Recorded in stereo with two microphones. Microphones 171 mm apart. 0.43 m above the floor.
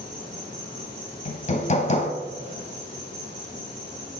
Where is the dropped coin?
No dropped coin in this recording.